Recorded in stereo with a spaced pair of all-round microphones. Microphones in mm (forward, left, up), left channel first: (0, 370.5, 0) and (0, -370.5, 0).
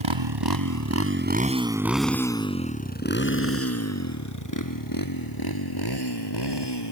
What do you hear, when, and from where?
0.0 s a motorcycle: 40° right (ahead or behind); by 6.9 s 35° left (ahead or behind)